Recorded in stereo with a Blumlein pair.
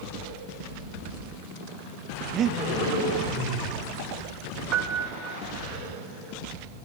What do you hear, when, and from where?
2.3 s breathing: 30° right, 0.7 m
4.7 s a piano: 35° right, 0.9 m